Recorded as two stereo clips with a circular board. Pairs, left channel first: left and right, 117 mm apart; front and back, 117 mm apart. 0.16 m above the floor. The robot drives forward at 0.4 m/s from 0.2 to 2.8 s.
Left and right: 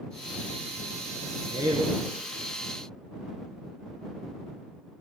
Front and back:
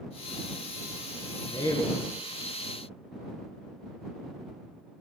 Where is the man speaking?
35° right, 1.8 m; by 2.0 s 40° right, 1.7 m.